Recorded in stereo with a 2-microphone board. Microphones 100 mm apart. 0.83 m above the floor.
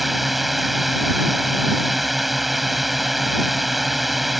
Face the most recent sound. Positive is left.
turn(degrees=0)  # may be behind; listen again after turning